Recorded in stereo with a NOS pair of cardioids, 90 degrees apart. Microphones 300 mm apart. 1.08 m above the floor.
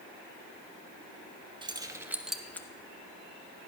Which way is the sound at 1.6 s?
15° right.